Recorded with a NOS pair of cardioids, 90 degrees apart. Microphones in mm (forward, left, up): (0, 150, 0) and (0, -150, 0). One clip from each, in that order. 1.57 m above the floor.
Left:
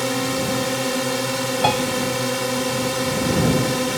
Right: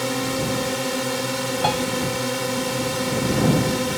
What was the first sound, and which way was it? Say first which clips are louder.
A drone: left 2 dB; 20° left.